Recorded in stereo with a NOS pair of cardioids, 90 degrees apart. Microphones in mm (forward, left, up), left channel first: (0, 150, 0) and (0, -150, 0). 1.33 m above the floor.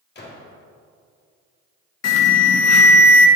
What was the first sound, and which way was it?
A gunshot, 35° left.